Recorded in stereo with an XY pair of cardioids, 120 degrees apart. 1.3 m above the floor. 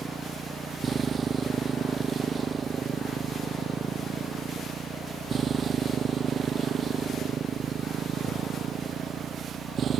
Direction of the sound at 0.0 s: 30° right.